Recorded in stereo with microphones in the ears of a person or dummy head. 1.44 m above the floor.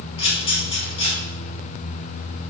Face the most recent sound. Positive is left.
turn(degrees=25)  # may be behind; listen again after turning